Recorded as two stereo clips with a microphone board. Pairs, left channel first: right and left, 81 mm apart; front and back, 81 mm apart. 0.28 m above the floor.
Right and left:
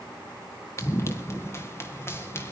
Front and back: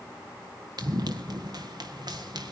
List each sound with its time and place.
0.8 s running footsteps: 145° right, 1.8 m; by 2.5 s 150° right, 4 m